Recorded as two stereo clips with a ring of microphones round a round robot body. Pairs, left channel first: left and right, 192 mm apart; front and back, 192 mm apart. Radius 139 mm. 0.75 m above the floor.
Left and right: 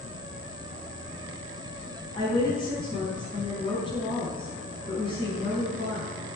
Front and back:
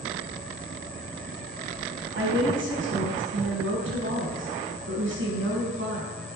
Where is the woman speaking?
165° left, 5 m.